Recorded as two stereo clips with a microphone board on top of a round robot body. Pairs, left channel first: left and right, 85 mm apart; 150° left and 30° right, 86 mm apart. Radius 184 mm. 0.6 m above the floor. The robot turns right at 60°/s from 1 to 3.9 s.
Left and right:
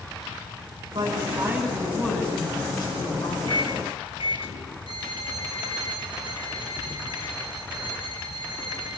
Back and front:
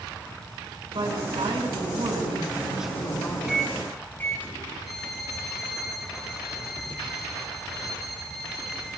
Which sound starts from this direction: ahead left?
A microwave, at 3.5 s.